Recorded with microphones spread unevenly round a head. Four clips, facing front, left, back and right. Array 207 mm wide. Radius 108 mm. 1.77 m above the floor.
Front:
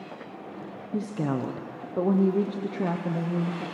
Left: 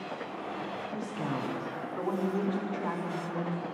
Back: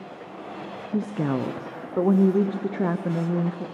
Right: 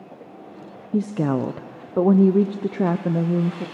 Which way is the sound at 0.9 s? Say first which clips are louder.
Right 15 dB, back 3 dB; 110° right.